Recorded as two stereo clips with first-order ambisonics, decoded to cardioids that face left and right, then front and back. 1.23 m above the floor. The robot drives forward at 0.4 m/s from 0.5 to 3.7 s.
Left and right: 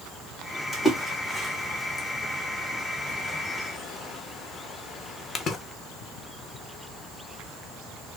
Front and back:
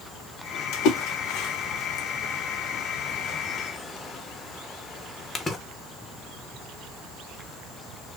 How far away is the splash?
About 1.3 m.